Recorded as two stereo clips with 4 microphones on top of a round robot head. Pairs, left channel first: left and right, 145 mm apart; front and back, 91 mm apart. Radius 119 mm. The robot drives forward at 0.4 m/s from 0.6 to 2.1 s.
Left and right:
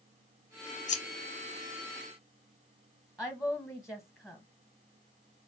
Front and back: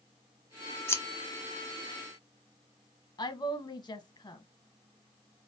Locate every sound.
0.9 s scissors: 60° left, 0.9 m; by 1.0 s 65° left, 0.9 m
3.2 s a woman speaking: 5° right, 0.7 m